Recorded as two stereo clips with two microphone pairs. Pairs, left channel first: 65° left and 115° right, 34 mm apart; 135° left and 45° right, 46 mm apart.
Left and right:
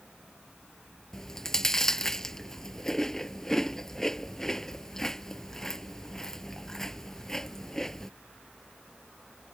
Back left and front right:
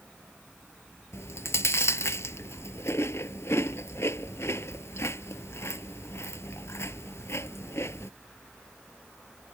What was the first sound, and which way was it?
Chewing, 140° left.